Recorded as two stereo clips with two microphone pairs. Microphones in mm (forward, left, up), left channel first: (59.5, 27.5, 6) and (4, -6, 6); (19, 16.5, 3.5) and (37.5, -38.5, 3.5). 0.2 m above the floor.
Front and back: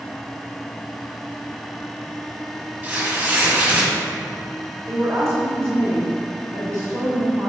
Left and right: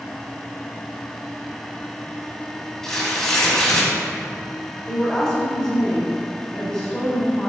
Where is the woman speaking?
175° left, 1.9 m.